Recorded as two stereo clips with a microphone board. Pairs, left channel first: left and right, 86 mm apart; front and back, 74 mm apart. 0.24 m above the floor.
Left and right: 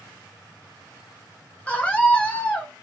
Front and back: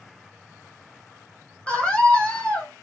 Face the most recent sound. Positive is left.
turn(degrees=45)